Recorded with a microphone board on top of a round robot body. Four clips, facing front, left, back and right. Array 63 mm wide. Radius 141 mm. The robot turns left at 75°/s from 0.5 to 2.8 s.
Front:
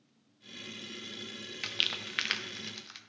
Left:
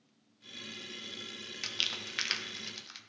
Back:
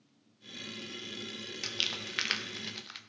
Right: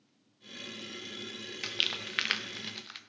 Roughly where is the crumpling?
Ahead right.